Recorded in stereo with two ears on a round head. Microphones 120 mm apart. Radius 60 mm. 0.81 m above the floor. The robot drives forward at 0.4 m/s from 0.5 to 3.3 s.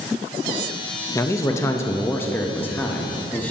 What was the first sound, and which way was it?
A man speaking, 20° left (ahead or behind).